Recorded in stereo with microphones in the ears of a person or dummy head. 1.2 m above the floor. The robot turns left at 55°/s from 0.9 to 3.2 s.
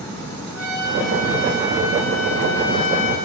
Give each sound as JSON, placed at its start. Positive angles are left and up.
{"t": 0.5, "sound": "a trumpet", "azimuth_deg": 160, "distance_m": 6.5}